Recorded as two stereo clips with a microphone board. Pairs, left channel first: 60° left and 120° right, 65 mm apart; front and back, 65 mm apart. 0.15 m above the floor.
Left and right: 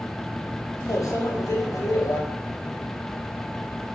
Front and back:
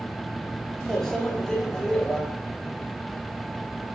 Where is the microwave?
80° left, 2.5 m.